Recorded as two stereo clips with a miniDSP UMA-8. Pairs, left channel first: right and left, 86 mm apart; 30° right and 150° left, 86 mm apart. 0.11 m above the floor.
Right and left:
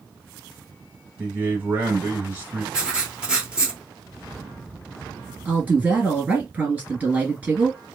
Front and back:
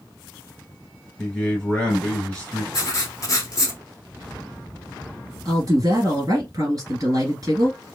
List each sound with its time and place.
1.2 s a man speaking: 40° left, 1.5 m
2.7 s writing: 10° left, 0.7 m
5.5 s a woman speaking: 155° left, 1.9 m